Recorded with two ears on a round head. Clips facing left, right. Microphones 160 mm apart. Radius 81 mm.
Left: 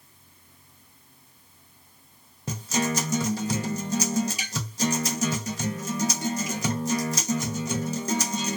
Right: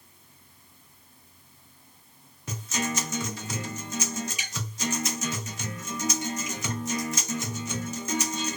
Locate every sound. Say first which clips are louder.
2.5 s a guitar: left 5 dB; 30° left (ahead or behind), 0.7 m